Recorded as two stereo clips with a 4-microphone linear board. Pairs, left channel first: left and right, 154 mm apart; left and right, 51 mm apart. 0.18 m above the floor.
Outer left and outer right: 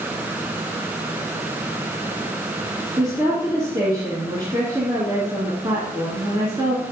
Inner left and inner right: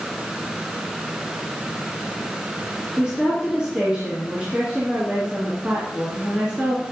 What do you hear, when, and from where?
3.0 s a woman speaking: 25° right (ahead or behind), 2.5 m